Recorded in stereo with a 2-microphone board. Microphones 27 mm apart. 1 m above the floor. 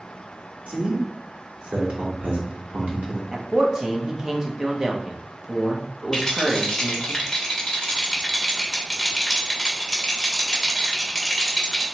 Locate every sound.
0.7 s a man speaking: 65° right (ahead or behind), 1.2 m
3.3 s a man speaking: 25° right (ahead or behind), 0.8 m
6.1 s a rattle: 15° left (ahead or behind), 0.8 m